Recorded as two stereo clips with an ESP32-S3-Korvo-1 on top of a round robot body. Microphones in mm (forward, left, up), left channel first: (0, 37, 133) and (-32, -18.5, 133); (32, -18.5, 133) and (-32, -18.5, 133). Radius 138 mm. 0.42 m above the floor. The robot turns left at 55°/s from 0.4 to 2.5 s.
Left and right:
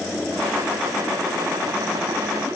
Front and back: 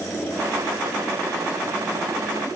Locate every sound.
Only background noise.